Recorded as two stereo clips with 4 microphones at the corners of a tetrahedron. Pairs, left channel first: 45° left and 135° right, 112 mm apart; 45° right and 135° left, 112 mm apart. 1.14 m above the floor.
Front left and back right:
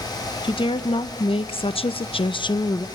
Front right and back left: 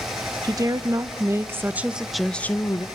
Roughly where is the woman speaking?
Left.